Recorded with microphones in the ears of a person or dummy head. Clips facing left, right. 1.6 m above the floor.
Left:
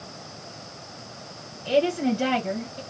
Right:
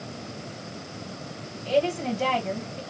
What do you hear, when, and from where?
1.6 s a woman speaking: 10° left (ahead or behind), 2.0 m